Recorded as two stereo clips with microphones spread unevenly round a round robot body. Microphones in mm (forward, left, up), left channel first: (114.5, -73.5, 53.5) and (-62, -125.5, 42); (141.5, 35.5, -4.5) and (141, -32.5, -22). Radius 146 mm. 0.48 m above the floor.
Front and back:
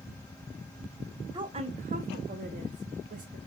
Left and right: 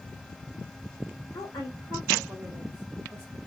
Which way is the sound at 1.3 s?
140° left.